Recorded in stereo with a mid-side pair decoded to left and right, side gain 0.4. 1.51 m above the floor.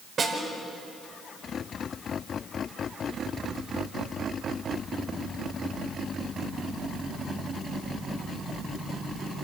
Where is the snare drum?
60° right, 5.5 m.